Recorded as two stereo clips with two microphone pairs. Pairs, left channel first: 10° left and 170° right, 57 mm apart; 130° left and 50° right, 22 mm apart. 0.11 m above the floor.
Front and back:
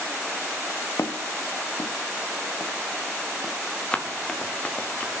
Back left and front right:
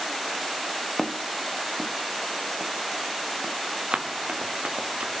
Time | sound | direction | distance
1.0 | footsteps | 40° left | 1.0 m
3.9 | running footsteps | 60° right | 1.9 m